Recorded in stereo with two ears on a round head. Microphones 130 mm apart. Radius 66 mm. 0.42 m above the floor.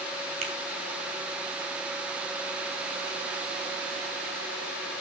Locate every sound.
0.4 s a finger snap: 45° right (ahead or behind), 3.5 m